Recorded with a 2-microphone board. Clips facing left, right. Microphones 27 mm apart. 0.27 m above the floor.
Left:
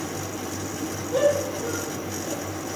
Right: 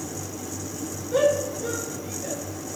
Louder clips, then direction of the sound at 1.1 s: Even; 5° right (ahead or behind).